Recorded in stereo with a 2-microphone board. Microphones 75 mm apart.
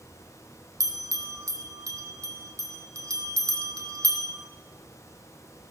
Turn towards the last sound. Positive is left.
turn(degrees=-50)  # may be behind; listen again after turning